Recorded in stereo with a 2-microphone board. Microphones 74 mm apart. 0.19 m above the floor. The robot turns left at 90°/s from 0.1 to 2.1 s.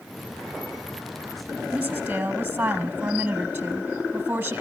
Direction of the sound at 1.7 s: 15° right (ahead or behind).